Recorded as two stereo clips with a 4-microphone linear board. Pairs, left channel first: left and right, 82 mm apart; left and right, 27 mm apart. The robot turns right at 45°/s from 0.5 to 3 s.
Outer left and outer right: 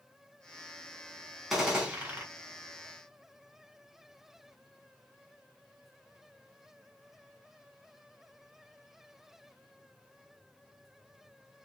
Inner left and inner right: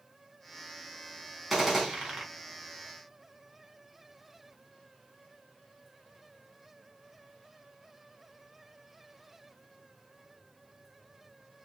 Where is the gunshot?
170° right, 1.2 m; by 2.2 s 140° right, 1.2 m.